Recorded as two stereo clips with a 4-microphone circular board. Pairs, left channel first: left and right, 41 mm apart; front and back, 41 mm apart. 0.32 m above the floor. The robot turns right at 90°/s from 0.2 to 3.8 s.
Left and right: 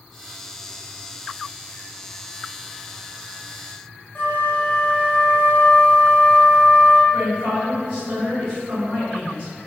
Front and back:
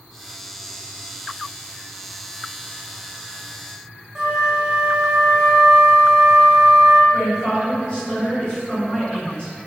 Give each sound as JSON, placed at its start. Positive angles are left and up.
{"t": 4.2, "sound": "a flute", "azimuth_deg": 115, "distance_m": 0.8}
{"t": 7.1, "sound": "a woman speaking", "azimuth_deg": -45, "distance_m": 1.8}